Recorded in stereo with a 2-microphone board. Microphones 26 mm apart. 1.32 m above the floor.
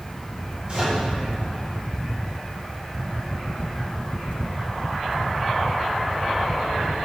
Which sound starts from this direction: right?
A microwave, at 0.7 s.